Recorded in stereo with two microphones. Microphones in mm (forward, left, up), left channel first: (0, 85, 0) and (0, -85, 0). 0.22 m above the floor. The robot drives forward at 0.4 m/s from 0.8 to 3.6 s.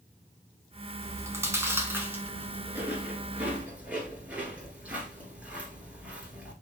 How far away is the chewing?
About 0.8 m.